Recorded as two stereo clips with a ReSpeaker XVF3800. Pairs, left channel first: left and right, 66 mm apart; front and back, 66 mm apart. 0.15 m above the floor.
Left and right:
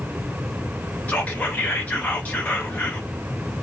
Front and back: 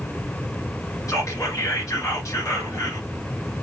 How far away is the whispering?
About 1.8 m.